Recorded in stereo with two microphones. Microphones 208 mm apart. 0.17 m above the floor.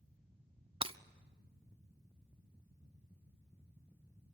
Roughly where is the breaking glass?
Right.